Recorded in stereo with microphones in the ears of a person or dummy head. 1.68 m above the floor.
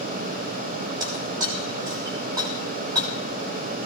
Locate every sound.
1.0 s breaking glass: 25° right (ahead or behind), 6 m